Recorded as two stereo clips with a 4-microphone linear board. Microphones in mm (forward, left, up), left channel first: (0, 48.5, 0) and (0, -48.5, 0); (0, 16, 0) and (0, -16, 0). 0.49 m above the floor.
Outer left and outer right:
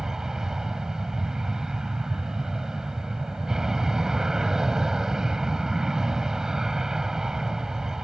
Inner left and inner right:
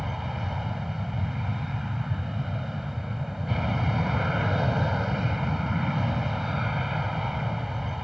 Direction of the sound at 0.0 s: 5° right (ahead or behind).